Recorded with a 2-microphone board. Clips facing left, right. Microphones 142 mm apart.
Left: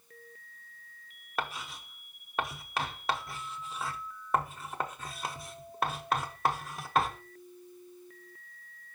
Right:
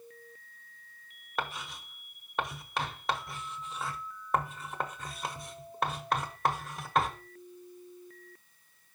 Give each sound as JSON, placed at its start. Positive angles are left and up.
{"t": 1.4, "sound": "writing", "side_deg": 0, "distance_m": 0.8}